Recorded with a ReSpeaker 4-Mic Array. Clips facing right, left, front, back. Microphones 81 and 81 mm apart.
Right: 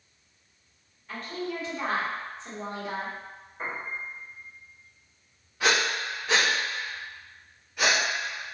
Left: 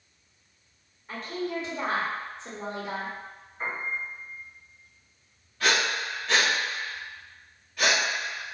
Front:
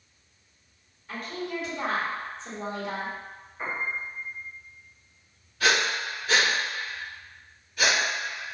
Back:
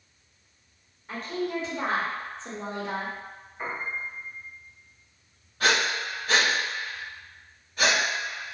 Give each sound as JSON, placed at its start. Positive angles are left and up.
{"t": 1.1, "sound": "a woman speaking", "azimuth_deg": 145, "distance_m": 1.1}
{"t": 3.6, "sound": "a piano", "azimuth_deg": -105, "distance_m": 1.3}
{"t": 5.6, "sound": "breathing", "azimuth_deg": -160, "distance_m": 1.6}